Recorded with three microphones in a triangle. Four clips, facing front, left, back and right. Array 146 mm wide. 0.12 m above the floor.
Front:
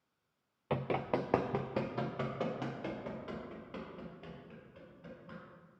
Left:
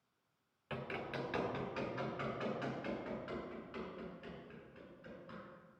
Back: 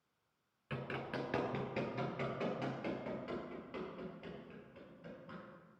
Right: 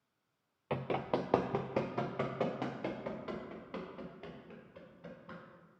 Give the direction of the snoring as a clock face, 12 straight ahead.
No snoring in this recording.